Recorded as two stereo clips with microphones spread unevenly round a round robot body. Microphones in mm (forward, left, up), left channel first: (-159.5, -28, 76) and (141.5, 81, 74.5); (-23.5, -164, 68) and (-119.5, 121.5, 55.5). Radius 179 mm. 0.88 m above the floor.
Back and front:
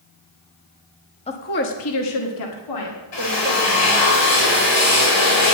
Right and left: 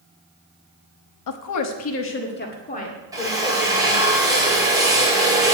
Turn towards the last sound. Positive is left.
turn(degrees=-175)